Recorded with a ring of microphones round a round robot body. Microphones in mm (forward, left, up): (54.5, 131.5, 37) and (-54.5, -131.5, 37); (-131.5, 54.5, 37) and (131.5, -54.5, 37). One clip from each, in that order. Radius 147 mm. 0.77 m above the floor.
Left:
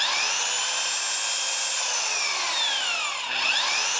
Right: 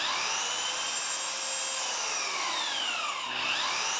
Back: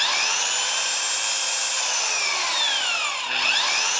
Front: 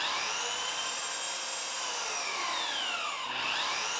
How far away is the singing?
I don't hear singing.